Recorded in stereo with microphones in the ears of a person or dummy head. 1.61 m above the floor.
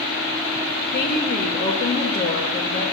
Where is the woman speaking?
50° left (ahead or behind), 1.6 m.